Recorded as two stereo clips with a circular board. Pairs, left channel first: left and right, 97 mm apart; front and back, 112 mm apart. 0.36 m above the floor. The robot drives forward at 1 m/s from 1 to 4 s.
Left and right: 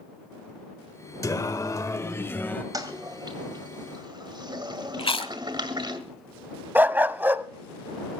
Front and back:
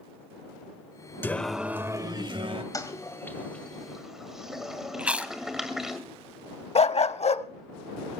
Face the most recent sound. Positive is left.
turn(degrees=-20)